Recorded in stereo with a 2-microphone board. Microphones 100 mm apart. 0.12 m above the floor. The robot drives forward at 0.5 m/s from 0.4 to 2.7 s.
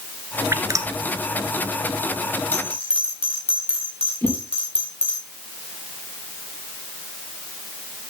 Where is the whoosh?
20° left (ahead or behind), 3.5 m.